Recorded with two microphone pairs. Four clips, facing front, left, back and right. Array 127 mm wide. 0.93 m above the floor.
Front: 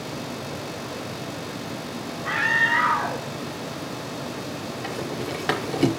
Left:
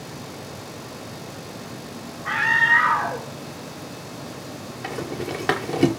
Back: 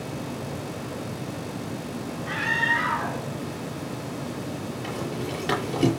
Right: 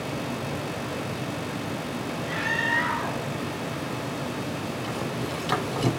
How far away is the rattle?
About 5.5 m.